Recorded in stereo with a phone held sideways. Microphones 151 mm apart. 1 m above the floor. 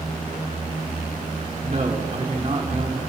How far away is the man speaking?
About 2 m.